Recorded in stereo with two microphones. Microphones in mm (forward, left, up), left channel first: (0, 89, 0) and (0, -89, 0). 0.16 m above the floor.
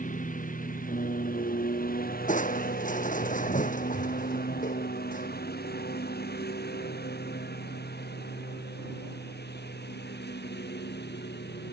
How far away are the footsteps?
I don't hear footsteps.